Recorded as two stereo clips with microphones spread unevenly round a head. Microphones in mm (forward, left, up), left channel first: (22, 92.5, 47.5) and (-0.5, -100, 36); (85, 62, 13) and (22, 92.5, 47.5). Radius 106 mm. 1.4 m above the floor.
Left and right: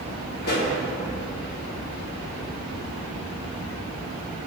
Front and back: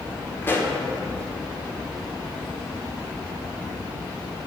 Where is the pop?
45° left, 1.8 m.